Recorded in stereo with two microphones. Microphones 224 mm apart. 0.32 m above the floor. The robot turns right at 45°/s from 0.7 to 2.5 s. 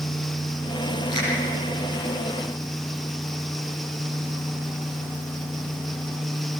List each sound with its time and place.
1.1 s a finger snap: 50° right (ahead or behind), 9.5 m; by 1.3 s 60° right (ahead or behind), 9.5 m